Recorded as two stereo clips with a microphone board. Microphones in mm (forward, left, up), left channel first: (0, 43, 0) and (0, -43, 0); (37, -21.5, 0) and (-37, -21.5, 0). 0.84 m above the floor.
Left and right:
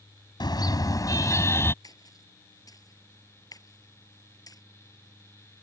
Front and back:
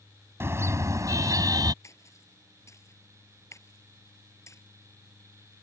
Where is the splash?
45° left.